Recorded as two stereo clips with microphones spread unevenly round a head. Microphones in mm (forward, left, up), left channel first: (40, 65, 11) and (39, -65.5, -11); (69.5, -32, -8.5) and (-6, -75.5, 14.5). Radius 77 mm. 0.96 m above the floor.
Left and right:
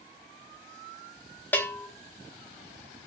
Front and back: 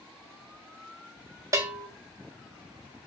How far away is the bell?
About 0.5 m.